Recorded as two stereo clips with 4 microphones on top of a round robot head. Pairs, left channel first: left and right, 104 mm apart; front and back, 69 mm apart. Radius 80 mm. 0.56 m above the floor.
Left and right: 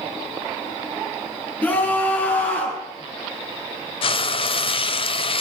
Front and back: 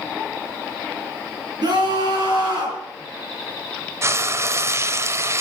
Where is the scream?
165° left, 6.5 m.